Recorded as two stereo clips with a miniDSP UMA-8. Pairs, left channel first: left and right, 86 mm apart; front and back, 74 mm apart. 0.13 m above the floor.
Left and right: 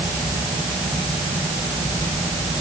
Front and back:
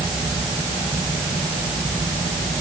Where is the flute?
I don't hear a flute.